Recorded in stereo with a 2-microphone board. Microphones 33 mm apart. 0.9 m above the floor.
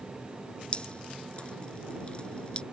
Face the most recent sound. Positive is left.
turn(degrees=35)  # may be behind; listen again after turning